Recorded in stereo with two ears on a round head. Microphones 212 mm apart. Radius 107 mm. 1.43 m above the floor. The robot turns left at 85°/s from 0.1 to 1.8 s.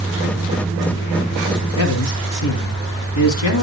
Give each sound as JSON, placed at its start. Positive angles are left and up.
{"t": 1.8, "sound": "a man speaking", "side_deg": 75, "distance_m": 3.5}